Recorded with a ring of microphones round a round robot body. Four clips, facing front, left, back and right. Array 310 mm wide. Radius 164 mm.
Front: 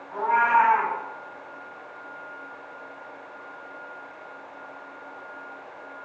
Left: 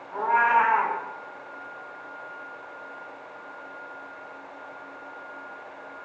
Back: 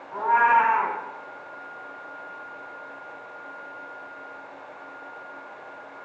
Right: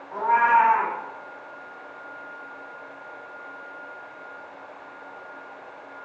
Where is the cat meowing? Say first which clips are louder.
Right 2 dB, back 1 dB; 90° right, 2.5 m.